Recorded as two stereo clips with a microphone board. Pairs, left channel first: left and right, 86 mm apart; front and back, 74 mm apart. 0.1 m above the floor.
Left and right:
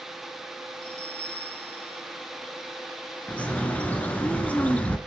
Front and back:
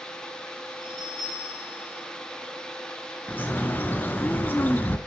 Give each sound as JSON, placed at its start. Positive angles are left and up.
{"t": 0.8, "sound": "a bell", "azimuth_deg": 20, "distance_m": 6.5}
{"t": 3.3, "sound": "a bird", "azimuth_deg": 30, "distance_m": 0.9}